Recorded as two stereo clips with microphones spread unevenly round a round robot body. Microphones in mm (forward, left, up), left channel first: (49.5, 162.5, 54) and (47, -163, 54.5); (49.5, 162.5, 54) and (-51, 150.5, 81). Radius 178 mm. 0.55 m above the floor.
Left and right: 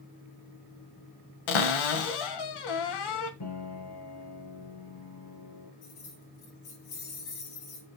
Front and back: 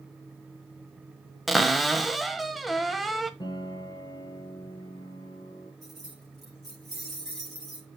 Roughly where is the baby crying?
No baby crying in this recording.